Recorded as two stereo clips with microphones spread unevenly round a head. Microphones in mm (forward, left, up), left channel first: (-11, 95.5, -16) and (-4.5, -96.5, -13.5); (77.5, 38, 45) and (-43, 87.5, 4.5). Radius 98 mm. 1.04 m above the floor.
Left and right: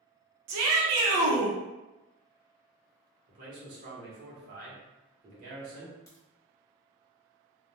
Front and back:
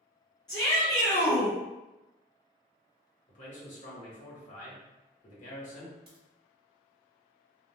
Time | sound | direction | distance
0.5 | a shout | 95° right | 0.6 m
3.3 | a man speaking | 55° right | 1.0 m
6.1 | a crack | 165° left | 1.0 m